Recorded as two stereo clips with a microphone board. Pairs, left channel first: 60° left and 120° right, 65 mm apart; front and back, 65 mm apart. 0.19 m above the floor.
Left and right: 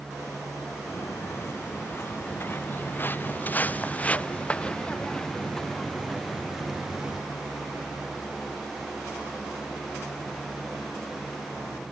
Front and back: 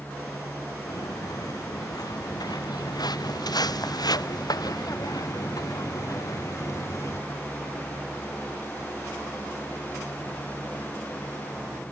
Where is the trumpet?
I don't hear a trumpet.